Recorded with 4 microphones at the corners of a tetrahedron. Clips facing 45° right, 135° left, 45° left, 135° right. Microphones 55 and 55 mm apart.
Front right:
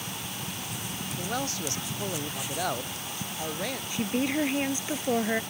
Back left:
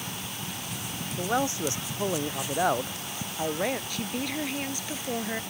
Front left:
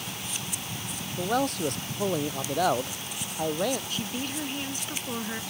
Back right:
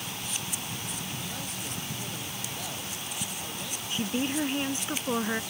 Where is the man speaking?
70° left.